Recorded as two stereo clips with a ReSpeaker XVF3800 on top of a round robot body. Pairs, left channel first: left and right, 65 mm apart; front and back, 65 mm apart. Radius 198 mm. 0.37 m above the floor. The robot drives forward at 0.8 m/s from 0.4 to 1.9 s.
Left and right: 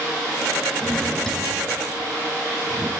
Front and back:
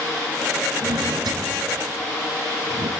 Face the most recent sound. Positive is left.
turn(degrees=175)